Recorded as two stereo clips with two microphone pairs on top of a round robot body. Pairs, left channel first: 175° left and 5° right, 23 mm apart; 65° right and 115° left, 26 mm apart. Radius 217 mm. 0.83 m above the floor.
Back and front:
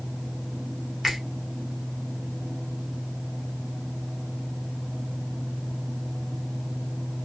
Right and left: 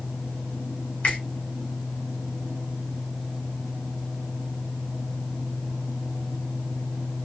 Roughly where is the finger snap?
Right.